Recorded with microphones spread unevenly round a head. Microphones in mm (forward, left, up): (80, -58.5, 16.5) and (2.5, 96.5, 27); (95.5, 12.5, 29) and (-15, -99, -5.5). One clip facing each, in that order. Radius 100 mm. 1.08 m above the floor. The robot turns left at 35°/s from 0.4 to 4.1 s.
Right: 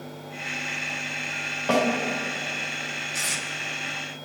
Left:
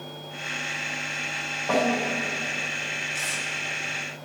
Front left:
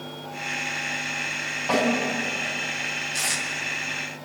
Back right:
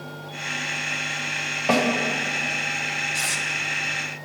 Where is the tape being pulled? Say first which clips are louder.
Right 1 dB, even; 25° right, 2 m; by 3.4 s 35° right, 2 m.